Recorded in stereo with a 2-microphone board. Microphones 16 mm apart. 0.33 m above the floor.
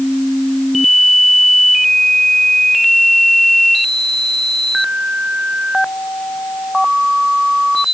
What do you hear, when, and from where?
Only background noise.